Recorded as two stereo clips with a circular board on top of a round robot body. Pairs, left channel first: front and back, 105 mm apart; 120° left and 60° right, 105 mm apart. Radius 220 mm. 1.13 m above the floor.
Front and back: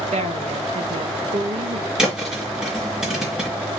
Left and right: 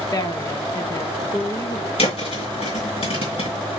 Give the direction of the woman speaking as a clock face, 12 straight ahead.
6 o'clock.